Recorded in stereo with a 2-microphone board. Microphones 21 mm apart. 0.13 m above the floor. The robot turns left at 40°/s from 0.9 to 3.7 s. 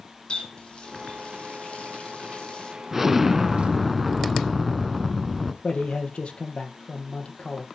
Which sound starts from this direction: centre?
An explosion, at 2.9 s.